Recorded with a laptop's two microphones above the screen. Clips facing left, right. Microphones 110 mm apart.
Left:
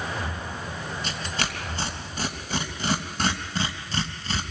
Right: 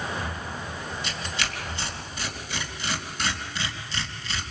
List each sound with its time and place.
1.0 s tearing paper: 45° left (ahead or behind), 3 m